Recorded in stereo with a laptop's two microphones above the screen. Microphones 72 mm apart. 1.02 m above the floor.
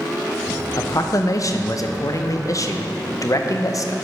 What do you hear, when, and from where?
0.8 s a man speaking: 50° left (ahead or behind), 0.6 m